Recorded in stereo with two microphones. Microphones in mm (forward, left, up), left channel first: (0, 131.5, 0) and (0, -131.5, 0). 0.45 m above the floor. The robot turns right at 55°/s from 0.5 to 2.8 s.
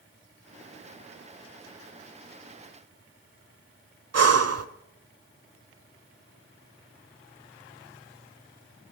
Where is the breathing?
70° right (ahead or behind), 0.8 m.